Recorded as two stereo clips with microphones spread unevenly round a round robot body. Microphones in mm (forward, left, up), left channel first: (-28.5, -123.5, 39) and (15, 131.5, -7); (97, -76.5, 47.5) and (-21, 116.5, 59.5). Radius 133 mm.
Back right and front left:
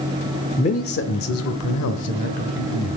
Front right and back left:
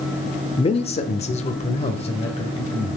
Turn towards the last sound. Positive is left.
turn(degrees=-125)